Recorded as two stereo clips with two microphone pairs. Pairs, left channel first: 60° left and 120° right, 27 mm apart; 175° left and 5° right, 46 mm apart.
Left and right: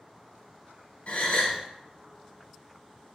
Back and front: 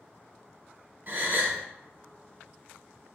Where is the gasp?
30° left, 0.9 m.